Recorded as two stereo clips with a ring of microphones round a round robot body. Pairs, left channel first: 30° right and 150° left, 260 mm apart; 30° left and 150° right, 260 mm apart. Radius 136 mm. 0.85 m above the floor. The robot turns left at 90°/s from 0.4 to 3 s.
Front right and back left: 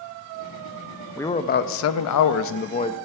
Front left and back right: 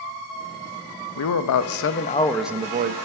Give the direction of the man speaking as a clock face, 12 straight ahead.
10 o'clock.